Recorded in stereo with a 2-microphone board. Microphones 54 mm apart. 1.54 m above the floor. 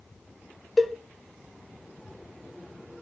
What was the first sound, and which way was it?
A cowbell, 5° right (ahead or behind).